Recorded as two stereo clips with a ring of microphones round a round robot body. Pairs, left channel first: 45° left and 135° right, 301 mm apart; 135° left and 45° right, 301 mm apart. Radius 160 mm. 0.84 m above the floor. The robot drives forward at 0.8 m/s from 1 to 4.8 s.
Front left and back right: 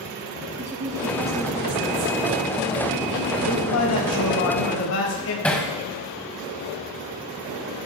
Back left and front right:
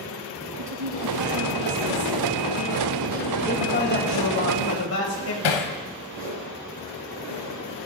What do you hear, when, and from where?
0.6 s a woman speaking: 55° right, 6 m; by 4.3 s 80° right, 5 m
3.5 s a man speaking: 80° left, 5 m; by 5.3 s 90° left, 5 m
5.4 s hammering: 130° left, 1.6 m